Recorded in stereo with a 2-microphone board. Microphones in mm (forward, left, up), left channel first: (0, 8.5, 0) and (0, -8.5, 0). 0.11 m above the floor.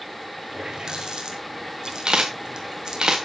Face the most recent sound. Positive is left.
turn(degrees=-60)  # may be behind; listen again after turning